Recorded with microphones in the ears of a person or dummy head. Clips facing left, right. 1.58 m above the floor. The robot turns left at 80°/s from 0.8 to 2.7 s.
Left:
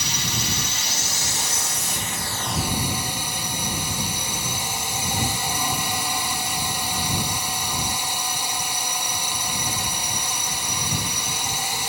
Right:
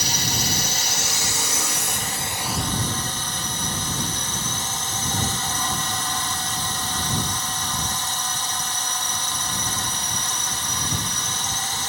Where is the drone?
40° right; by 11.9 s 165° left.